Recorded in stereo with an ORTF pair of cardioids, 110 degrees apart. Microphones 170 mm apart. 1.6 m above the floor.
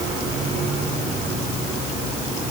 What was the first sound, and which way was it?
Only background noise.